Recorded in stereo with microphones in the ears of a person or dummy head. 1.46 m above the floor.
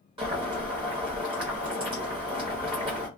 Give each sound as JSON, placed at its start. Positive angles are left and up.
{"t": 0.2, "sound": "boiling", "side_deg": -25, "distance_m": 1.1}